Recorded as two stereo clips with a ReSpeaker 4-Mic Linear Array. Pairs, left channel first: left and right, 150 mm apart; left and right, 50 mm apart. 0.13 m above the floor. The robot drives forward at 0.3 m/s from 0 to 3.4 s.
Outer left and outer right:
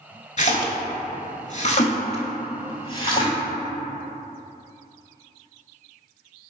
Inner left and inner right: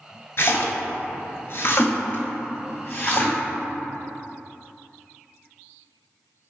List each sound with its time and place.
0.4 s a splash: 50° left (ahead or behind), 0.6 m; by 3.4 s 30° left (ahead or behind), 0.9 m